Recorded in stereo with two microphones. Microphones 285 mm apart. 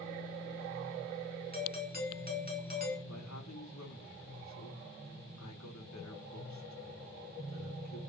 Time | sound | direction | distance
1.5 | a doorbell | 30° right (ahead or behind) | 4.5 m
3.1 | a man speaking | 70° left (ahead or behind) | 3 m